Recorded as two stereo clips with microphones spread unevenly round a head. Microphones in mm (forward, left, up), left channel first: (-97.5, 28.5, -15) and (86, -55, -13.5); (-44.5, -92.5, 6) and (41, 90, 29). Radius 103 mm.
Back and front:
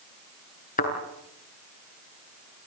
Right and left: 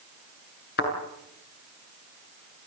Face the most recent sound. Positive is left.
turn(degrees=-150)